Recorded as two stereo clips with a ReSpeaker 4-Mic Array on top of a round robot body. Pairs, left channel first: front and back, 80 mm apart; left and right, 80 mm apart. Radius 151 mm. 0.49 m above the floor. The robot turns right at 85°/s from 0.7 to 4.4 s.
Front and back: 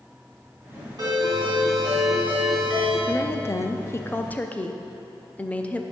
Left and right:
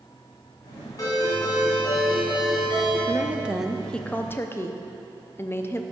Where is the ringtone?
140° left, 2.5 m; by 3.0 s 50° right, 2.5 m.